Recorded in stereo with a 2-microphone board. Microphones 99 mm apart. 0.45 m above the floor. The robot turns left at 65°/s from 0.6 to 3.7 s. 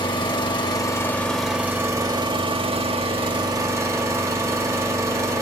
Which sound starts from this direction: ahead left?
An engine running, at 0.0 s.